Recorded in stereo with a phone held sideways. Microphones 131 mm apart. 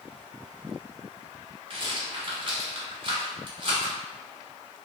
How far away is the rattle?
About 1.1 m.